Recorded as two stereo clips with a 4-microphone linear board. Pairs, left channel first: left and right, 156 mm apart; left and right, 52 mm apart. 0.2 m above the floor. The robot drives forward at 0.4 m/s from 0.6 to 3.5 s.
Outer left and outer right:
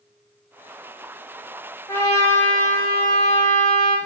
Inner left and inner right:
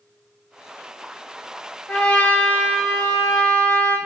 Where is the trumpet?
20° left (ahead or behind), 1.5 m; by 4.0 s 15° left (ahead or behind), 1.8 m.